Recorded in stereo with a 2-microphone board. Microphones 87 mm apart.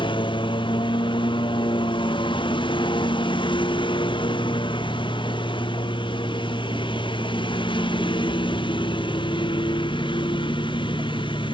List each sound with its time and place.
0.0 s a lawn mower: 65° left (ahead or behind)